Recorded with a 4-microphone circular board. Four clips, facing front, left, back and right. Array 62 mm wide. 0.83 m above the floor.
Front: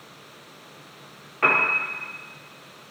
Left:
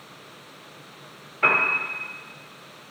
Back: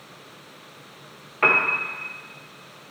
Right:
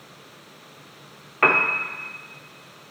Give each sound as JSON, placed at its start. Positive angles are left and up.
{"t": 1.4, "sound": "a piano", "azimuth_deg": -100, "distance_m": 1.2}